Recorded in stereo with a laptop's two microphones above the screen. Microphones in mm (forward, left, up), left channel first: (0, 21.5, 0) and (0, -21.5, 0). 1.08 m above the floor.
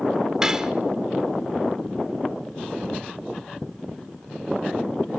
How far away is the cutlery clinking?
About 1.6 m.